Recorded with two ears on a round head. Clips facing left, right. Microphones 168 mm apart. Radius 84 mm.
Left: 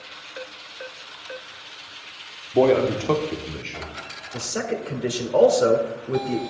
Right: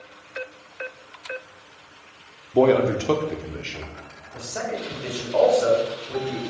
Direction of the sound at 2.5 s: Centre (ahead or behind).